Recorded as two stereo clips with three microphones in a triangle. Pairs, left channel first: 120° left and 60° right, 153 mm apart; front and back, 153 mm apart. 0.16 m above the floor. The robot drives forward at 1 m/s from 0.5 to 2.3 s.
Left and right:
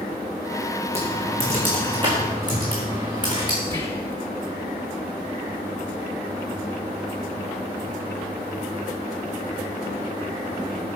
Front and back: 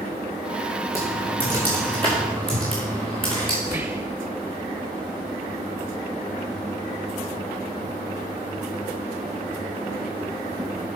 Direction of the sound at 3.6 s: 150° left.